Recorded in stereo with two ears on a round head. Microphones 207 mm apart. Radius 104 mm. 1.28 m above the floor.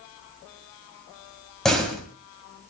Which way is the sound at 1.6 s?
Centre (ahead or behind).